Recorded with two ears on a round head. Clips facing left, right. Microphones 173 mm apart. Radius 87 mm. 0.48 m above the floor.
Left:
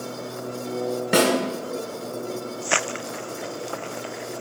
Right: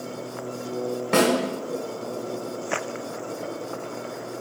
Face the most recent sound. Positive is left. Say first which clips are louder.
# even
turn(degrees=5)  # may be behind; listen again after turning